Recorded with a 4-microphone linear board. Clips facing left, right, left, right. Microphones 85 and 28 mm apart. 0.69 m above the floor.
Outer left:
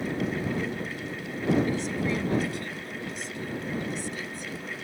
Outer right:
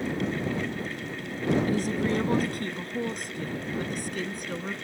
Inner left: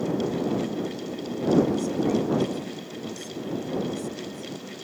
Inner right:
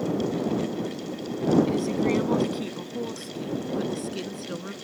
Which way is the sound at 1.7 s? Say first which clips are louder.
Outer right 2 dB, even; 45° right (ahead or behind).